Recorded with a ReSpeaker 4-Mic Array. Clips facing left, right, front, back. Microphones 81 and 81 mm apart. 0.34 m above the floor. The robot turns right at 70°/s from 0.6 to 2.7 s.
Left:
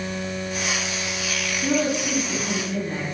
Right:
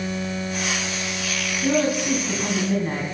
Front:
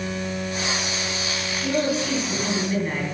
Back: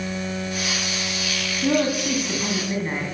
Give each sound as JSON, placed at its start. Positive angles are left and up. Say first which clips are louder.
{"t": 1.6, "sound": "a woman speaking", "louder": "right 2 dB, back 2 dB", "azimuth_deg": 175, "distance_m": 3.0}